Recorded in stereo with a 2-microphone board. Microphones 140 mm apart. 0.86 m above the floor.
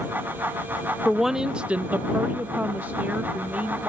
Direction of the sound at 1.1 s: Centre (ahead or behind).